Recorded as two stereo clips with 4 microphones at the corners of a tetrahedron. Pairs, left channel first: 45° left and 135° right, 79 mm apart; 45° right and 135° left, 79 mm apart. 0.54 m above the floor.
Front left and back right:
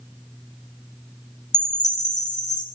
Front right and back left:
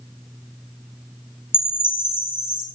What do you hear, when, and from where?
1.5 s a chime: 15° left, 3 m